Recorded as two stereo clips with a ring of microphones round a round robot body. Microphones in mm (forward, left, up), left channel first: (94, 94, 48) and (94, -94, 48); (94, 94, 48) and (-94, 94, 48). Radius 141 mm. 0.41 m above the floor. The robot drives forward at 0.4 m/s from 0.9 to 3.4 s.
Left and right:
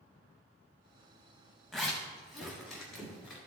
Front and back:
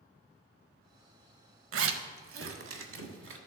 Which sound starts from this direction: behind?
A zipper, at 1.7 s.